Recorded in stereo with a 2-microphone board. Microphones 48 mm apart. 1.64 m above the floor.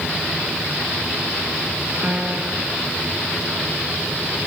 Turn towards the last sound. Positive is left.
turn(degrees=-25)  # may be behind; listen again after turning